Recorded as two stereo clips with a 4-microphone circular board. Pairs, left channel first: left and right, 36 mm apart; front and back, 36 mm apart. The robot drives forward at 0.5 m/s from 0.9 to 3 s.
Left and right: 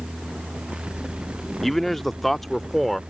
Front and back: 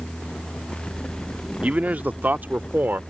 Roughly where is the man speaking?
Behind.